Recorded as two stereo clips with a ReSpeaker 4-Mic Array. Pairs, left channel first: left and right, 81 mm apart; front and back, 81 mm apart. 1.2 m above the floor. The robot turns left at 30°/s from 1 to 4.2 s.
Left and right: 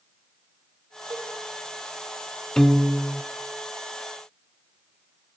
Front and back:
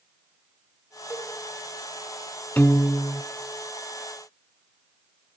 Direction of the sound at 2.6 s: 15° left.